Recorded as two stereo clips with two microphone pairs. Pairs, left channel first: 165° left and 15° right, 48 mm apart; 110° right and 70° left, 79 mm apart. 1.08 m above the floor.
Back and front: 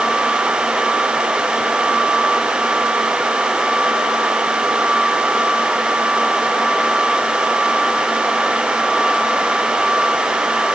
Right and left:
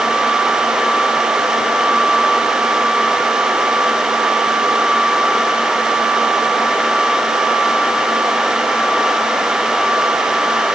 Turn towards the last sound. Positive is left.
No sound to turn to.